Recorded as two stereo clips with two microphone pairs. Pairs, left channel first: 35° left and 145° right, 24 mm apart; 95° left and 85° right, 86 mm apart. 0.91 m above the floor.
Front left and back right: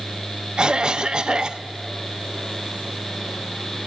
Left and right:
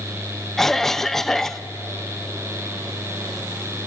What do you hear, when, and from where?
0.6 s a cough: 175° right, 0.6 m